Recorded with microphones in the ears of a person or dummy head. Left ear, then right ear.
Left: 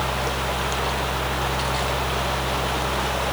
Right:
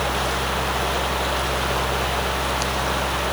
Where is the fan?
80° left, 0.9 m.